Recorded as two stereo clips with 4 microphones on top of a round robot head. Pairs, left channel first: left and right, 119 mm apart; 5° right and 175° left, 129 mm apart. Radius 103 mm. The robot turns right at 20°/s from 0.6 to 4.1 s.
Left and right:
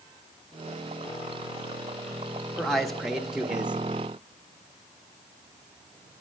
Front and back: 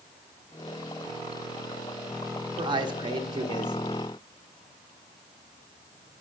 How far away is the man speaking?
About 0.6 m.